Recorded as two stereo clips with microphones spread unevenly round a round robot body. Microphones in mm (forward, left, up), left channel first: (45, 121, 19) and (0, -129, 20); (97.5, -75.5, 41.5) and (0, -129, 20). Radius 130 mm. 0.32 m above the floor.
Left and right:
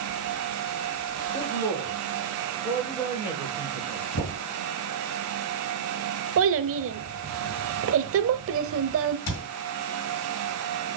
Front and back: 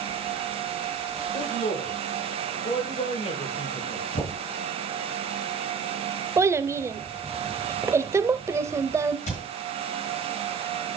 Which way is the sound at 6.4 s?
100° right.